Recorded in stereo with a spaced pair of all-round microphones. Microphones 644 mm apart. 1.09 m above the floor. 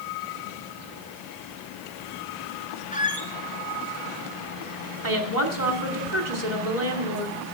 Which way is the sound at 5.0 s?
75° right (ahead or behind).